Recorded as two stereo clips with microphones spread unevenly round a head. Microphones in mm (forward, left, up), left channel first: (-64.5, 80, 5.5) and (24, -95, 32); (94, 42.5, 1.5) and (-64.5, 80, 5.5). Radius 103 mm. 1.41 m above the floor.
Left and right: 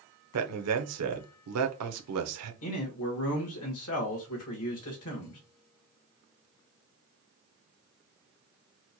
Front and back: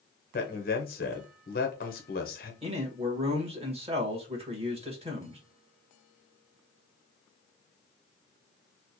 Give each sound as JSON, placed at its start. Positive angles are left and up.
{"t": 0.3, "sound": "a man speaking", "azimuth_deg": -65, "distance_m": 0.8}
{"t": 2.6, "sound": "a man speaking", "azimuth_deg": 110, "distance_m": 1.5}